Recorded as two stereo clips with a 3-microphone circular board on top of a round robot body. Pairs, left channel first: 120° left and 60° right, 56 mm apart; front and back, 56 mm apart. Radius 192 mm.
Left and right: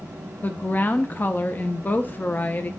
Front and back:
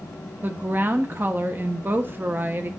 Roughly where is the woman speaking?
Behind left.